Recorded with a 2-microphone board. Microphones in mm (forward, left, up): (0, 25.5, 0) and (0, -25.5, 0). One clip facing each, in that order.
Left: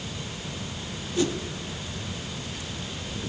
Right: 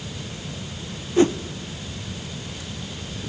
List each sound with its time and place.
1.2 s a whoosh: 35° right (ahead or behind), 1.0 m